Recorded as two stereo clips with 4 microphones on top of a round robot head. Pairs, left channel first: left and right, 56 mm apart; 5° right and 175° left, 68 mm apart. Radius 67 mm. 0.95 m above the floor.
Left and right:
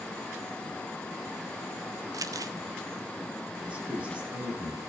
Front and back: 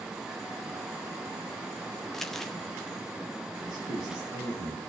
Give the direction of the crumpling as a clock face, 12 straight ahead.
3 o'clock.